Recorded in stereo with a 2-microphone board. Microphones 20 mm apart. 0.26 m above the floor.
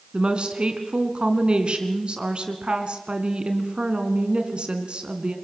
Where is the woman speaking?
55° right (ahead or behind), 3 m.